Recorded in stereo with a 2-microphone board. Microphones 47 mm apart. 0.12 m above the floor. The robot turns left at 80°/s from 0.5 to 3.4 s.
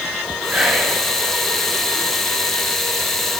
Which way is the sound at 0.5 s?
25° right (ahead or behind).